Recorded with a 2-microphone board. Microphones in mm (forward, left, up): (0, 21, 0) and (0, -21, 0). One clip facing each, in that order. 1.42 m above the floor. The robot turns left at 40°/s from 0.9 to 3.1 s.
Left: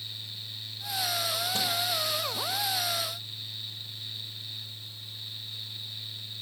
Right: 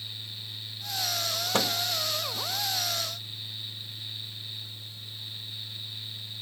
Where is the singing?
I don't hear singing.